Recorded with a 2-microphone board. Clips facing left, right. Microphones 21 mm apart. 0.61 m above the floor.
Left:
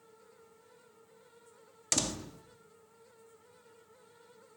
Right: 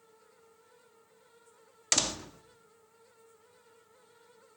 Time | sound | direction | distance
1.9 | a door slam | 25° right (ahead or behind) | 0.7 m